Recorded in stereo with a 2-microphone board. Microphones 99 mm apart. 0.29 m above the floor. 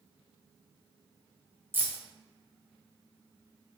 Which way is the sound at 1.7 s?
20° right (ahead or behind).